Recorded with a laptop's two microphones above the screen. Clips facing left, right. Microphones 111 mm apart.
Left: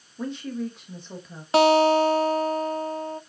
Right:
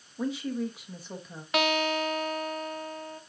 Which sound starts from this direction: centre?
A woman speaking, at 0.2 s.